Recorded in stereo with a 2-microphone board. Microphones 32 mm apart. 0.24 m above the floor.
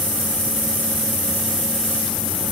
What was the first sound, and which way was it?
Only background noise.